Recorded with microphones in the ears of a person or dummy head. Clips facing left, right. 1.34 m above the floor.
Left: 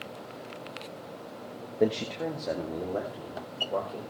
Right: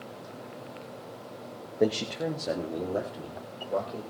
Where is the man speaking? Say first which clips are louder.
Even; 10° right (ahead or behind), 1.2 m; by 4.0 s 15° right (ahead or behind), 4.5 m.